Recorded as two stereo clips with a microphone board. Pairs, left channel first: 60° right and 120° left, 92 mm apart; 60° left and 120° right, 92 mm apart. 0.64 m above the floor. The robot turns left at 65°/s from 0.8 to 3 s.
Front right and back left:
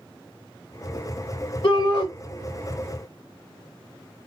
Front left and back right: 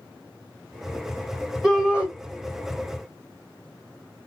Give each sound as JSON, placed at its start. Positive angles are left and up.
{"t": 1.6, "sound": "a shout", "azimuth_deg": -30, "distance_m": 2.5}